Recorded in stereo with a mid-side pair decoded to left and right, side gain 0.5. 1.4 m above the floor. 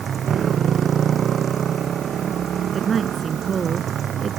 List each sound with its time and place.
0.0 s a motorcycle: 50° right; by 4.4 s 55° right
2.7 s a woman speaking: 40° right